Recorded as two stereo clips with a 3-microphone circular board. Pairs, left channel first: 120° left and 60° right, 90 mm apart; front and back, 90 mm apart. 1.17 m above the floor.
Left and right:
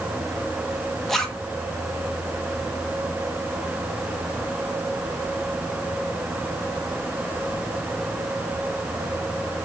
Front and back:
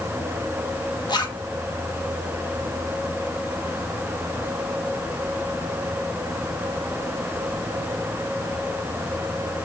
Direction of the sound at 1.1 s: 35° left.